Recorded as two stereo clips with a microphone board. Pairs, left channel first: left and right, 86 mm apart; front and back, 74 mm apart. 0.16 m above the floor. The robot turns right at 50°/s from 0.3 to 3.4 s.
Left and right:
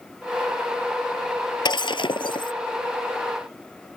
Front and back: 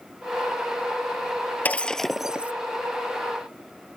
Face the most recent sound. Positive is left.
turn(degrees=155)